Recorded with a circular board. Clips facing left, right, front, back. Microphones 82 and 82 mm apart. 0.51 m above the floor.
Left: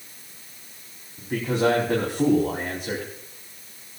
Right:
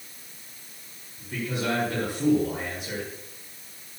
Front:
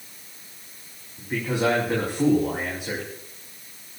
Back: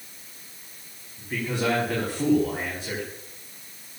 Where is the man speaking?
70° left, 5 m.